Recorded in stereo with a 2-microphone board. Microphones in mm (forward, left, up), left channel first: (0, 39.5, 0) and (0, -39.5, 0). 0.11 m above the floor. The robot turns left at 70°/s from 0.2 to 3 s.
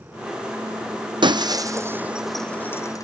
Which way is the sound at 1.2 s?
75° right (ahead or behind).